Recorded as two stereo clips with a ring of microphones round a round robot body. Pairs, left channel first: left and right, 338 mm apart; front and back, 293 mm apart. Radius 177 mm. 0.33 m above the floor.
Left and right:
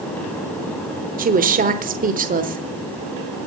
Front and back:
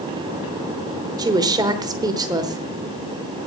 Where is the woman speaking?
120° right, 1.0 m.